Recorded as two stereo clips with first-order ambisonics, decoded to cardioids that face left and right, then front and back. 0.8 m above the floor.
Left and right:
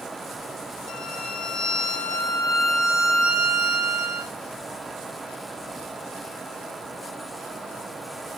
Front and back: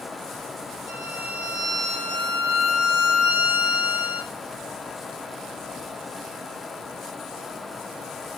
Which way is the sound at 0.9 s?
35° right.